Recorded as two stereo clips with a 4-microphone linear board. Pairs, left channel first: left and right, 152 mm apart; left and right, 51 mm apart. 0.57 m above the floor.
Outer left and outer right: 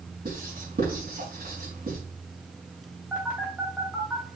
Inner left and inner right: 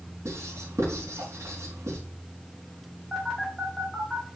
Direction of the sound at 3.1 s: 10° right (ahead or behind).